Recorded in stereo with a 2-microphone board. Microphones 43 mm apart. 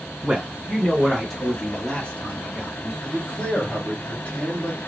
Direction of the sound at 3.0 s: 30° left (ahead or behind).